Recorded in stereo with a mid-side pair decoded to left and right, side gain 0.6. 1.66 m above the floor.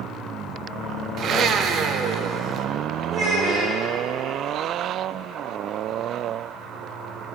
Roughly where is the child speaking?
Ahead right.